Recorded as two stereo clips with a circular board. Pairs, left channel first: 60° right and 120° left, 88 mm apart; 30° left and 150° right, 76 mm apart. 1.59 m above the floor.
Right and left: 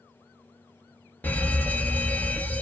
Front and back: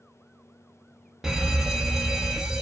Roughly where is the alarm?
Right.